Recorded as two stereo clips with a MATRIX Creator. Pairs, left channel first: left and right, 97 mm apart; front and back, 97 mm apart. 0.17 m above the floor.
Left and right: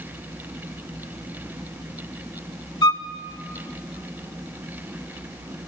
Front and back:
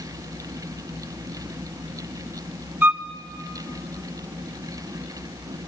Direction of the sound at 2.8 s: 115° left.